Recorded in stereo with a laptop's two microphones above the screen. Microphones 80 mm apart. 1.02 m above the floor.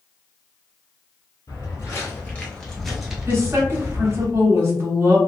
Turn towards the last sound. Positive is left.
turn(degrees=-35)  # may be behind; listen again after turning